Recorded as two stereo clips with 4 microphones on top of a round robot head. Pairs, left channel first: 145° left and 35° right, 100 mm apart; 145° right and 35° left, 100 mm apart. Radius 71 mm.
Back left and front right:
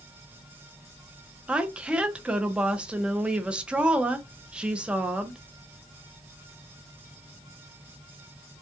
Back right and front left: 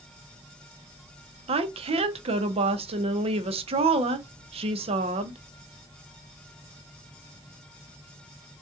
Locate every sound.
1.5 s a woman speaking: 45° left, 0.8 m